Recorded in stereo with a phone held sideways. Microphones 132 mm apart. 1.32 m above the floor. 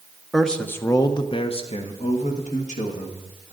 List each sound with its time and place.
0.3 s a man speaking: centre (ahead or behind), 0.8 m; by 3.5 s 75° left (ahead or behind), 2.0 m